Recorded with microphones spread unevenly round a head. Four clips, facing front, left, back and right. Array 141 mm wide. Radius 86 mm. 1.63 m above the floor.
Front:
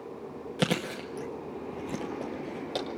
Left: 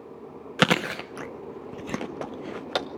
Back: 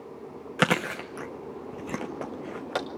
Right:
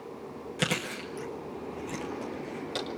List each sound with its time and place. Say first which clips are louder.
0.6 s chewing: left 9 dB, back 4 dB; 85° left, 0.7 m